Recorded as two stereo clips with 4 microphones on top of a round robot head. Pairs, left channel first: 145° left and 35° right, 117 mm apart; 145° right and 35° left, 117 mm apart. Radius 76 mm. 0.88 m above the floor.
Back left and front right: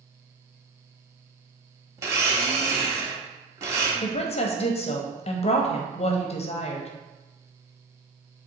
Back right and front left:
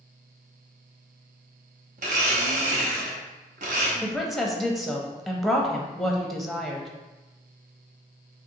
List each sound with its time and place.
2.0 s a blender: 25° left, 0.6 m
4.0 s a woman speaking: 125° left, 0.6 m